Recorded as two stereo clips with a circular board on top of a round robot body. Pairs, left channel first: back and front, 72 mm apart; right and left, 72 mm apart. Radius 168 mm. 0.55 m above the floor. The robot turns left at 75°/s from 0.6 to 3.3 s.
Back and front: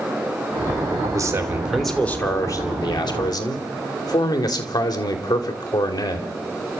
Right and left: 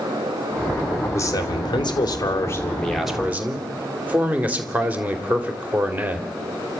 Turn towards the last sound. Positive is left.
turn(degrees=160)